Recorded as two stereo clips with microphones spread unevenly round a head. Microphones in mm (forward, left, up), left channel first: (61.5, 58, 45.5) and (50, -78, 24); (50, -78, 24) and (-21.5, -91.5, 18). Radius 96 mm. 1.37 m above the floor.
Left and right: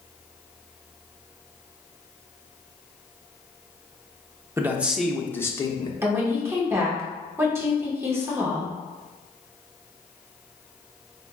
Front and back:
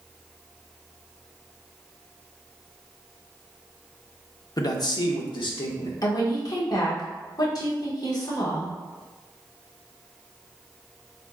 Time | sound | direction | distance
4.6 | a man speaking | 25° right | 0.9 m
6.0 | a woman speaking | 25° right | 1.4 m